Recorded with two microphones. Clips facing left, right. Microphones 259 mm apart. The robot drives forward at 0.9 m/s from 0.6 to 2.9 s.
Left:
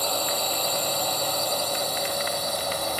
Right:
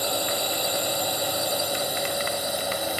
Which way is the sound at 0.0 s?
10° right (ahead or behind).